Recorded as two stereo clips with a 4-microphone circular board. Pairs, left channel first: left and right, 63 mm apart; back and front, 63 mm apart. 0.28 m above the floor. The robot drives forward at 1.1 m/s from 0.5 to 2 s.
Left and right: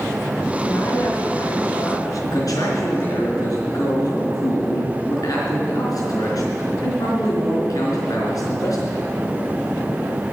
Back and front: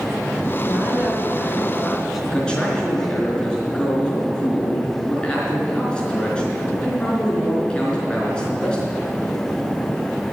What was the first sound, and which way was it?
A woman speaking, 55° left.